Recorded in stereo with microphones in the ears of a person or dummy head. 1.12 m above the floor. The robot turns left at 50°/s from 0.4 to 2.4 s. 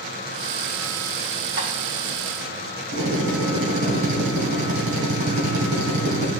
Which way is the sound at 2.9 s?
60° right (ahead or behind).